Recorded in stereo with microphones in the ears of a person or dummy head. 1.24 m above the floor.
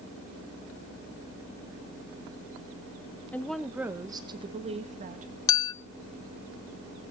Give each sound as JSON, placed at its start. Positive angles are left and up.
{"t": 3.3, "sound": "a woman speaking", "side_deg": 10, "distance_m": 1.4}
{"t": 5.5, "sound": "a clink", "side_deg": 20, "distance_m": 0.8}